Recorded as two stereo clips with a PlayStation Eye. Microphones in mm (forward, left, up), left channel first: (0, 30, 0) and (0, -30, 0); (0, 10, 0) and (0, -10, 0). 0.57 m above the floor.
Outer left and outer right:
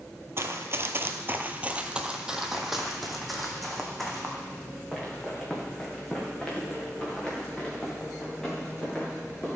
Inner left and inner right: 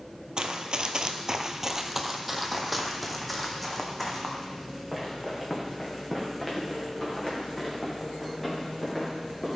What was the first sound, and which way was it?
Running footsteps, 45° right (ahead or behind).